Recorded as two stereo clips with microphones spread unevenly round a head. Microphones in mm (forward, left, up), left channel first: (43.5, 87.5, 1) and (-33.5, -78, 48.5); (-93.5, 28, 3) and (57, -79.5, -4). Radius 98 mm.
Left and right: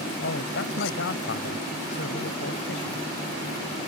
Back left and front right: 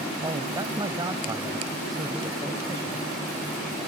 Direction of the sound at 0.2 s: 35° left.